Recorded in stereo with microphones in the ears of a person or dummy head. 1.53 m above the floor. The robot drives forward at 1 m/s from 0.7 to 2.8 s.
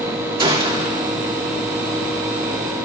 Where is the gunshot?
30° right (ahead or behind), 1.3 m; by 1.0 s 25° right (ahead or behind), 1.6 m.